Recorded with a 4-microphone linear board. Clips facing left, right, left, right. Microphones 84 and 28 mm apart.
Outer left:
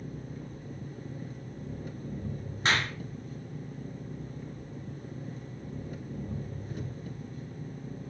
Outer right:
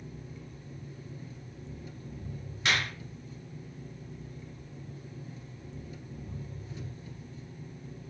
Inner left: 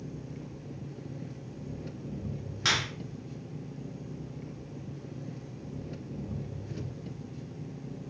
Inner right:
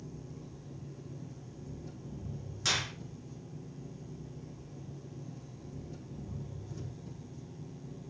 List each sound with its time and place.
0.0 s an engine running: 50° left (ahead or behind), 1.4 m
2.6 s a clap: 35° left (ahead or behind), 2.5 m